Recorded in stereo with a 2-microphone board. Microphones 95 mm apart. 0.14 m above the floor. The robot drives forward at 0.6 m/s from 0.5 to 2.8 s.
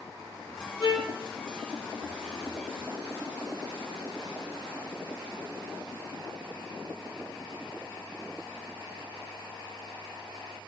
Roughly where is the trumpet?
Right.